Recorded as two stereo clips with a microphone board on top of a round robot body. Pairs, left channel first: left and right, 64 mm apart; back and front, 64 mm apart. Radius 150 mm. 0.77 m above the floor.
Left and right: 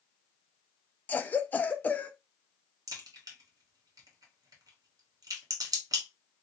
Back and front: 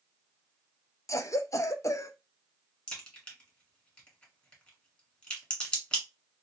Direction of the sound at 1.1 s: 155° left.